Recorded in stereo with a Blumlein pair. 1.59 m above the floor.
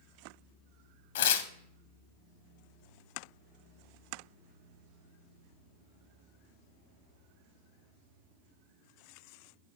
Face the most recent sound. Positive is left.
turn(degrees=55)